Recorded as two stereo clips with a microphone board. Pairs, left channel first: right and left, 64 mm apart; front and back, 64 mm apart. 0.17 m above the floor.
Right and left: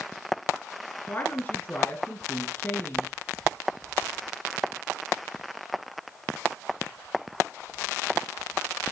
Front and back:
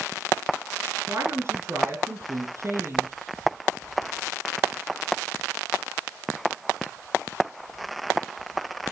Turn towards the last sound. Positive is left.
turn(degrees=-145)